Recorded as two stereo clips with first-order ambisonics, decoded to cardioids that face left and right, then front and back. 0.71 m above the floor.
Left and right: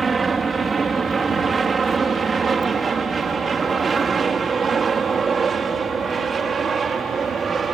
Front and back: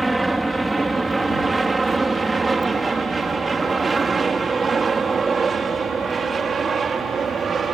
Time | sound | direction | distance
0.0 | an aircraft | 115° right | ?